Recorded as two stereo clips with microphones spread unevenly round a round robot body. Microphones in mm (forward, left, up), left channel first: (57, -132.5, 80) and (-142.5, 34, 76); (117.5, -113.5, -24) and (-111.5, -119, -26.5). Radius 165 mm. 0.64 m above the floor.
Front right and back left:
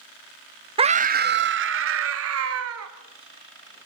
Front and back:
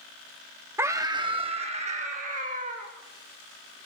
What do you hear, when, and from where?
0.8 s a scream: 120° left, 0.7 m; by 2.9 s 115° left, 1.9 m